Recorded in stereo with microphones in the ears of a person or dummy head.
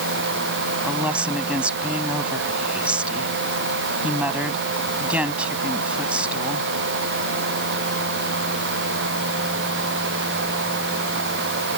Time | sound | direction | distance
0.8 | a woman speaking | 10° right (ahead or behind) | ?